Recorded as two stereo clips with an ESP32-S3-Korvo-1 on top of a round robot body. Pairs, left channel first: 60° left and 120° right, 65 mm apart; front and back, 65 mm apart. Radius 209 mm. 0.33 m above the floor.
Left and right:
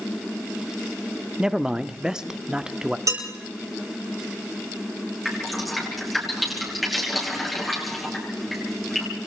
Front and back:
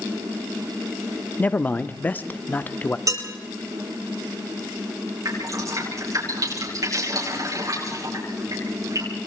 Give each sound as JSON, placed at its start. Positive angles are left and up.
{"t": 1.4, "sound": "a man speaking", "azimuth_deg": -50, "distance_m": 1.2}
{"t": 3.1, "sound": "dishes clattering", "azimuth_deg": -150, "distance_m": 9.0}
{"t": 5.2, "sound": "dripping", "azimuth_deg": 150, "distance_m": 9.0}